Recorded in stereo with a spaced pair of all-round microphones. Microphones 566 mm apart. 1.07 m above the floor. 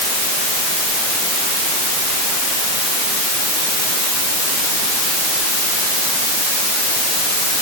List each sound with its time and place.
Only background noise.